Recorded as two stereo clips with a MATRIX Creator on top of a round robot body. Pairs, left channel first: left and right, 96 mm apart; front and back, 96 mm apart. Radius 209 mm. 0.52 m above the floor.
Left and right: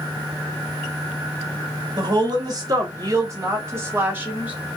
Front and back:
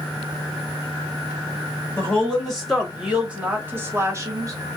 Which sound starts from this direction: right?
A woman speaking, at 2.0 s.